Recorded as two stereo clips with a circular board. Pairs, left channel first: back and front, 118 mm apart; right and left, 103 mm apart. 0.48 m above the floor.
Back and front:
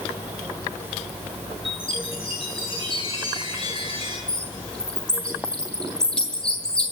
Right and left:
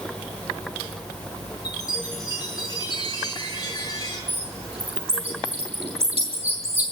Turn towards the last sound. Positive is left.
turn(degrees=95)